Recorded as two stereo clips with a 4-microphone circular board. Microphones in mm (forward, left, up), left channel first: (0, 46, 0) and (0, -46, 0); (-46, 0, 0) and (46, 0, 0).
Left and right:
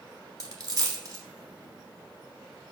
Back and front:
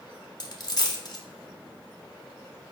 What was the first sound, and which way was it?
A dropped coin, 140° right.